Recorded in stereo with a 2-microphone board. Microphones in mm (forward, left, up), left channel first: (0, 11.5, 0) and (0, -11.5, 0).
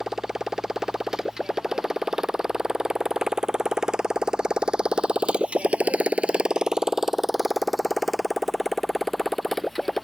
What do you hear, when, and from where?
0.0 s a motorcycle: 20° right (ahead or behind); by 10.1 s 5° left (ahead or behind)